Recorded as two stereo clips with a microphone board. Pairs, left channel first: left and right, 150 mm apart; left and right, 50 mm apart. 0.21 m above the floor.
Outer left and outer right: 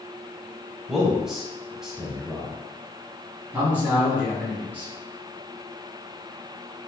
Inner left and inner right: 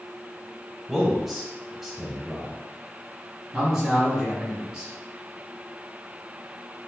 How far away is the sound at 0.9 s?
About 1.1 m.